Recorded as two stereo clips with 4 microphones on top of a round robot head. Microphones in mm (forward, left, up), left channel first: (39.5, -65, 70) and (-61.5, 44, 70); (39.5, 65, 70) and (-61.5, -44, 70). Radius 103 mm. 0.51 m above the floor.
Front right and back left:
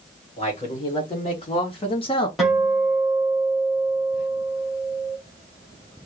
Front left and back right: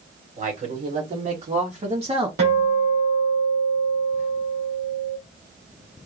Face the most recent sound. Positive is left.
turn(degrees=-140)